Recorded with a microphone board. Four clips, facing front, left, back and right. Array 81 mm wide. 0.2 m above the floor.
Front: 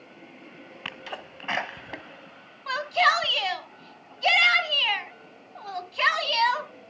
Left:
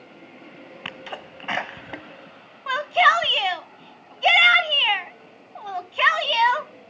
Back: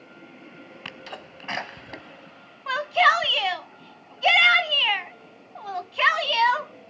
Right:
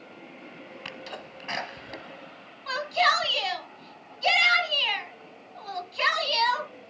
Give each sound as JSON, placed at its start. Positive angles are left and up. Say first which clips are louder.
{"t": 0.8, "sound": "a sneeze", "louder": "left 5 dB, front 2 dB", "azimuth_deg": 65, "distance_m": 1.1}
{"t": 2.7, "sound": "a shout", "louder": "left 6 dB, back 3 dB", "azimuth_deg": 115, "distance_m": 1.3}